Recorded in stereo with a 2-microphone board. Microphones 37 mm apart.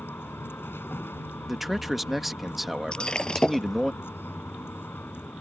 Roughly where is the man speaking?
Centre.